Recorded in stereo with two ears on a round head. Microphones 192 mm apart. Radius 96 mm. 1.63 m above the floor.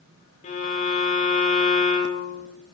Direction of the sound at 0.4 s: 35° left (ahead or behind).